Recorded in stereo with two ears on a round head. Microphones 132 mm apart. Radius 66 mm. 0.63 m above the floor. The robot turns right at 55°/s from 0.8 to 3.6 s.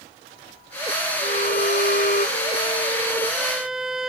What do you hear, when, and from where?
1.2 s a violin: 55° left; by 4.1 s 175° right